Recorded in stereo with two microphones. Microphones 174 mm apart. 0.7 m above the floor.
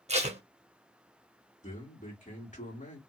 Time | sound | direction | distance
0.1 | tape being pulled | 40° right (ahead or behind) | 0.7 m
1.6 | a man speaking | 45° left (ahead or behind) | 1.8 m